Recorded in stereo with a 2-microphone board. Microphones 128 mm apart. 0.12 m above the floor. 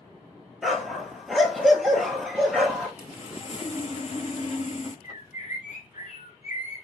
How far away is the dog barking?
About 1.1 m.